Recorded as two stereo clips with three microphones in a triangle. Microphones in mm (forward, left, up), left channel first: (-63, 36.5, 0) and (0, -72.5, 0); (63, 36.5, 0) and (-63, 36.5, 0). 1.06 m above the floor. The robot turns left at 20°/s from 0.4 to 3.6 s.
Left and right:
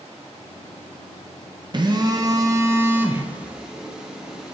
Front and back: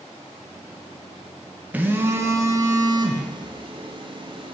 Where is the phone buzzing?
105° right, 0.6 m; by 4.5 s 140° right, 0.6 m.